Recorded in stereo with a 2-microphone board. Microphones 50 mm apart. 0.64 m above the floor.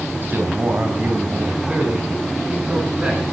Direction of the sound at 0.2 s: 45° right (ahead or behind).